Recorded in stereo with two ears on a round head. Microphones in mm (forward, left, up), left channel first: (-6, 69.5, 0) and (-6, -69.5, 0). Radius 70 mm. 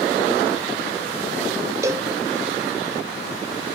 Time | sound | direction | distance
1.8 | a cowbell | 20° right (ahead or behind) | 1.0 m